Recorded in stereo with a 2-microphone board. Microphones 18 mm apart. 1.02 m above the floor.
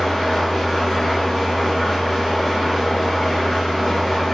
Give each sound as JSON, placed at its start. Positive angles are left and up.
{"t": 0.0, "sound": "an engine running", "side_deg": 25, "distance_m": 1.6}